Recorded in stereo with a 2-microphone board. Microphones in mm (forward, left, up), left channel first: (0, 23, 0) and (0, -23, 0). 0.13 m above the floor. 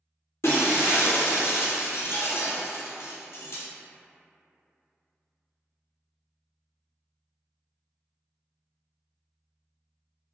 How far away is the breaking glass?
About 0.7 m.